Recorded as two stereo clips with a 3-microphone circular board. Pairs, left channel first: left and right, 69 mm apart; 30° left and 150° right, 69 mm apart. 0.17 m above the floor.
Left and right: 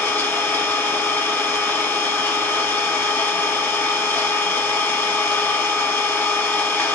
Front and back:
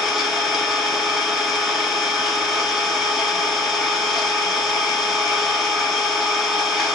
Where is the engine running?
130° left, 0.7 m.